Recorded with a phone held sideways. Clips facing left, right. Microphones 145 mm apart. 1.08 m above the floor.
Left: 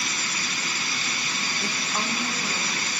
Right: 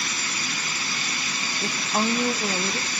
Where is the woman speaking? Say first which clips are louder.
Right 7 dB; 20° right (ahead or behind), 1.2 m; by 2.9 s 70° right (ahead or behind), 1.5 m.